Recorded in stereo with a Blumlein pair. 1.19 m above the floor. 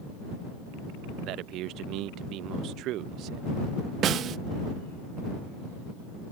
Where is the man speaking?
35° right.